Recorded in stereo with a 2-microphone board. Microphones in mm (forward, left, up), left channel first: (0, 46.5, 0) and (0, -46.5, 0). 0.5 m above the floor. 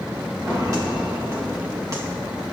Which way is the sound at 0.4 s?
35° right (ahead or behind).